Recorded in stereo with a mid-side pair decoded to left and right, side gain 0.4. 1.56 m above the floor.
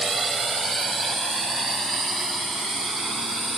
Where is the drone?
40° right; by 3.6 s 45° right.